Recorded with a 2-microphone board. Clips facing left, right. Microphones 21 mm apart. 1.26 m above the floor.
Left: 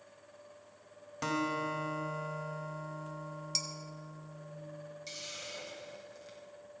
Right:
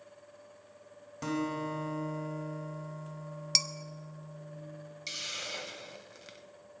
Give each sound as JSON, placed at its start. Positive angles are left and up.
{"t": 1.2, "sound": "a guitar", "side_deg": 25, "distance_m": 1.6}
{"t": 3.5, "sound": "dishes clattering", "side_deg": -45, "distance_m": 0.6}
{"t": 5.1, "sound": "a hiss", "side_deg": -30, "distance_m": 1.1}